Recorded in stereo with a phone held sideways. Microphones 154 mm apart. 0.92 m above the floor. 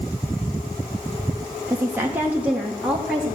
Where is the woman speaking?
20° right (ahead or behind), 1.1 m; by 3.4 s centre (ahead or behind), 1.9 m.